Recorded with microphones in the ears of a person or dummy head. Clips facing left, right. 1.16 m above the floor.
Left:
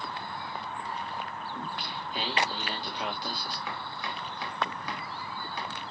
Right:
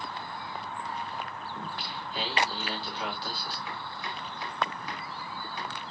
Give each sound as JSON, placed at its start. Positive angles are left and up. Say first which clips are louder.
{"t": 1.6, "sound": "singing", "louder": "left 1 dB", "side_deg": 15, "distance_m": 3.5}
{"t": 3.7, "sound": "chopping", "louder": "left 1 dB", "side_deg": 70, "distance_m": 2.5}